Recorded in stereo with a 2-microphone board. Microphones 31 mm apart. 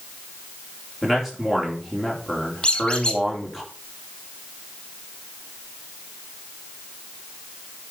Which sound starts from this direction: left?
A squeak, at 2.6 s.